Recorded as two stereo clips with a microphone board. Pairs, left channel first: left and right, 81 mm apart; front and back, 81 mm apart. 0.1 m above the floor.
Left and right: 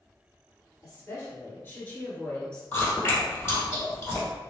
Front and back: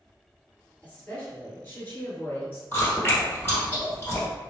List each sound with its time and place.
0.8 s a woman speaking: 65° left, 2.0 m; by 2.6 s 20° left, 1.6 m
2.7 s chewing: 50° left, 1.9 m